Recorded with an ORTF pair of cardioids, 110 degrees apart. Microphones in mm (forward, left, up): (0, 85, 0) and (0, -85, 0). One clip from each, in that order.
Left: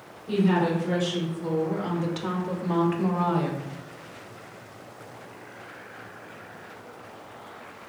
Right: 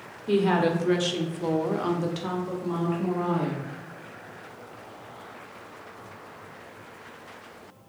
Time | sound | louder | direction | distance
0.3 | a woman speaking | right 2 dB | 70° right | 1.1 m